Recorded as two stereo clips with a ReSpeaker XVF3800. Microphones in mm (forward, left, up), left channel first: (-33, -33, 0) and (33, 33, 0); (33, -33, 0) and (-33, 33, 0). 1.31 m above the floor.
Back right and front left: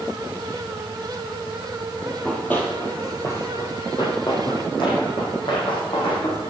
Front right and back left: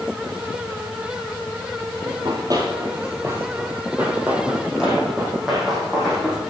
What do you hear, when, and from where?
2.0 s running footsteps: 145° left, 2.0 m; by 6.5 s 130° right, 3.5 m